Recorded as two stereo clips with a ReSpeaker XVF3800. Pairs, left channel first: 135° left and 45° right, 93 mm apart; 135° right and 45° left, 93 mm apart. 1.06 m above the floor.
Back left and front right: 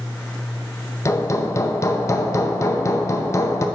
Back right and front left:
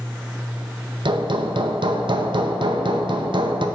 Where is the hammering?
75° left, 0.5 m.